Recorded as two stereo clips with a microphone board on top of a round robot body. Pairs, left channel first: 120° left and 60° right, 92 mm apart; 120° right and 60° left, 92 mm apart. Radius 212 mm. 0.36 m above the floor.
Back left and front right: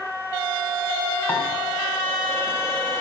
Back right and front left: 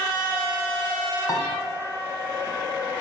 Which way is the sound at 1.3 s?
170° right.